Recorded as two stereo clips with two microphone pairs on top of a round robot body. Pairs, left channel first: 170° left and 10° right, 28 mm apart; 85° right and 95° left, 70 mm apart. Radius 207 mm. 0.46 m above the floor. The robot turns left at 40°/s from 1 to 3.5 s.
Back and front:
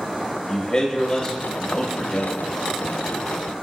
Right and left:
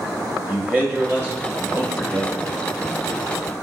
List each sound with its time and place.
0.5 s a man speaking: 170° left, 1.4 m; by 2.4 s 115° left, 1.4 m